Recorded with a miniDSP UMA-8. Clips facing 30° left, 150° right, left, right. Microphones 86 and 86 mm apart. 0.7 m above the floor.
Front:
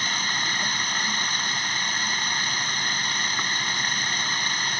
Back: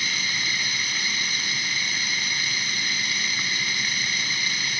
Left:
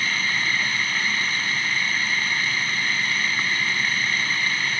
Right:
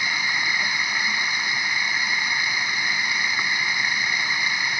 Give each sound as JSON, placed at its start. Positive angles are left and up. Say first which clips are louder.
{"t": 0.0, "sound": "running water", "louder": "front 2 dB, even", "azimuth_deg": -15}